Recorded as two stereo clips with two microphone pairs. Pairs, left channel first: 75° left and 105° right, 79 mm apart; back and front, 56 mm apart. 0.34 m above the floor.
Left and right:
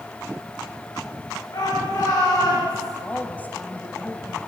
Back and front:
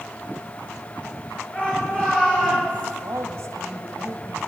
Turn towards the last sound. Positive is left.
turn(degrees=10)